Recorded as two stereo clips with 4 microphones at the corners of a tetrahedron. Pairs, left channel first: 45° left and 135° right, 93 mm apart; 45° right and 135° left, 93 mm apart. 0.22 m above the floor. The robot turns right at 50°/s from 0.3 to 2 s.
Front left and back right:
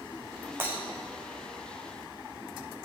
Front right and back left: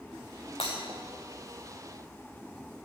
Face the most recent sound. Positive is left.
turn(degrees=0)